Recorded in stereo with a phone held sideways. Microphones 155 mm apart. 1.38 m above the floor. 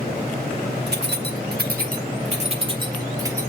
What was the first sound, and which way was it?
Keys jangling, 80° right.